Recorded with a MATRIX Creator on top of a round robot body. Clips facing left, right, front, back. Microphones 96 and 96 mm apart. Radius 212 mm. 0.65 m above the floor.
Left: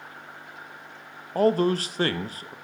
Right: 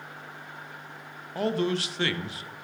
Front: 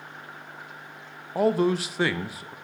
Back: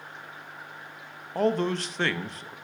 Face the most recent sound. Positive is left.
turn(degrees=80)